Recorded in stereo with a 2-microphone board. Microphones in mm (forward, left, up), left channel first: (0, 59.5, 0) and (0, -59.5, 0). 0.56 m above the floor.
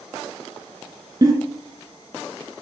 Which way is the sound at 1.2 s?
35° right (ahead or behind).